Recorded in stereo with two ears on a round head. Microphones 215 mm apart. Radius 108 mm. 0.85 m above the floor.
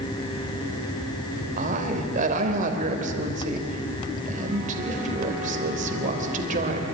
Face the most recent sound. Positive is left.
turn(degrees=-35)  # may be behind; listen again after turning